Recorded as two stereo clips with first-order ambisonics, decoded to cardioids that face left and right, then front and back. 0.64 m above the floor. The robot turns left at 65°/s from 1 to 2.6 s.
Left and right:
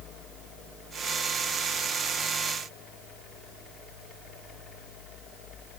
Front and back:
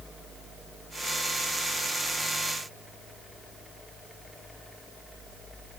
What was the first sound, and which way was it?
Only background noise.